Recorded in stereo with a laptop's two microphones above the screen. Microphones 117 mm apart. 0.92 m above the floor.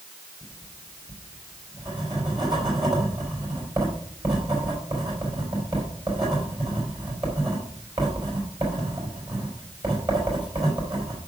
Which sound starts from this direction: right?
Writing, at 0.4 s.